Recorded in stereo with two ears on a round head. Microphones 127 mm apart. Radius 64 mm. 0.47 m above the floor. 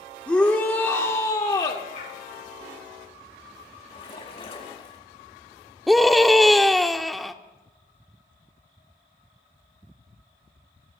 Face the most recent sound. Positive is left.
turn(degrees=0)  # may be behind; listen again after turning